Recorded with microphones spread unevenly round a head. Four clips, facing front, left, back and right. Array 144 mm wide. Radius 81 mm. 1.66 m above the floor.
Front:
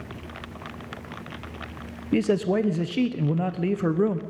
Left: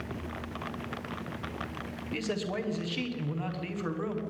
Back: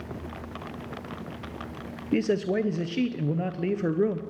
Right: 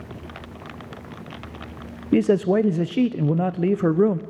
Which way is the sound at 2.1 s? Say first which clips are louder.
Right 16 dB, front 3 dB; 90° right.